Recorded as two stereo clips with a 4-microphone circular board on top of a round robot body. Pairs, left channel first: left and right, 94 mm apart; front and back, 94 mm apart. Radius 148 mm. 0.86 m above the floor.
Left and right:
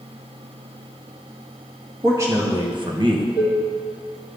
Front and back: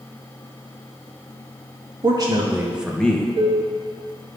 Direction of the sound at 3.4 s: 155° right.